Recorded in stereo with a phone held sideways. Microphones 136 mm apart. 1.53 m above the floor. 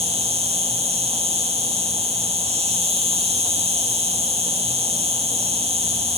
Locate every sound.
0.0 s an insect: 50° right (ahead or behind), 1.1 m